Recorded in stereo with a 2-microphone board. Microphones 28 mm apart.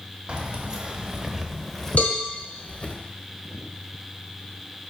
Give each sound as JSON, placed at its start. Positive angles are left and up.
{"t": 0.3, "sound": "keys jangling", "side_deg": -35, "distance_m": 1.1}
{"t": 2.0, "sound": "a cowbell", "side_deg": 50, "distance_m": 1.1}